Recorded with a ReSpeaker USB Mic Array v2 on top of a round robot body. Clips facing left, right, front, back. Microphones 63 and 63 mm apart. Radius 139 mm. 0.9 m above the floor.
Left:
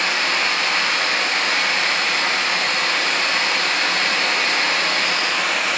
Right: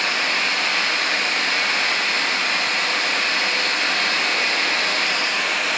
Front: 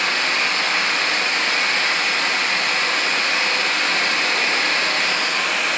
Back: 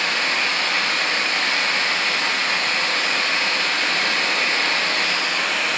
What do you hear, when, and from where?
0.0 s running water: 70° left, 2.0 m